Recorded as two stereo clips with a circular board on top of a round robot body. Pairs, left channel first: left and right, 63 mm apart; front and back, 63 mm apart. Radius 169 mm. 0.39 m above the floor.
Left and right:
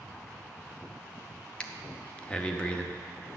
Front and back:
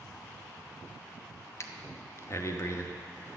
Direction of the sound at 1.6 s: 20° left.